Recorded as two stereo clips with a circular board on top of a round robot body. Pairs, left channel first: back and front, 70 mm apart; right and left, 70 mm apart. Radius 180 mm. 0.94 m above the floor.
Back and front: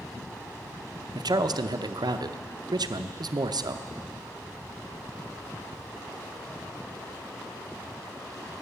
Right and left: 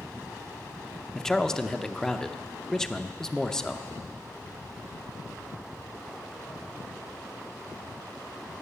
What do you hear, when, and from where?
1.1 s a man speaking: 10° right, 0.7 m